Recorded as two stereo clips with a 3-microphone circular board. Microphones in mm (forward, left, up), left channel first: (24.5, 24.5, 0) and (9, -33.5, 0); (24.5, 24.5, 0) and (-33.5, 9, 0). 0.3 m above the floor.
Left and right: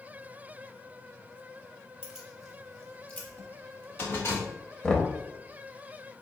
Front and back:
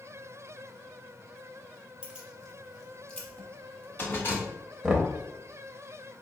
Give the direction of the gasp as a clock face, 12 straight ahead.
No gasp in this recording.